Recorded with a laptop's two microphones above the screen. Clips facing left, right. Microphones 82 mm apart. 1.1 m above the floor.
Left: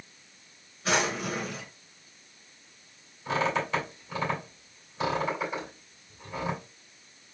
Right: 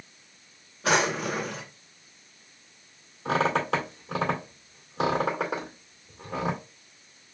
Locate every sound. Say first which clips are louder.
0.8 s a drawer: right 3 dB; 65° right (ahead or behind), 1.5 m
3.2 s a squeak: right 3 dB; 70° right (ahead or behind), 1.9 m